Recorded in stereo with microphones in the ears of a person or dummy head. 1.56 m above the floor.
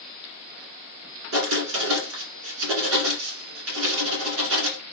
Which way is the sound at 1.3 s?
75° right (ahead or behind).